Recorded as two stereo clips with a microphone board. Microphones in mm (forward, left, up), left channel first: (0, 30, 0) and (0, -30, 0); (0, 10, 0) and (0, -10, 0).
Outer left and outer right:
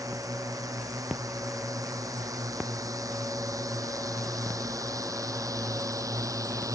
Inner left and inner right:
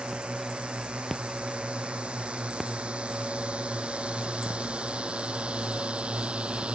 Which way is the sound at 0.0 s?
85° right.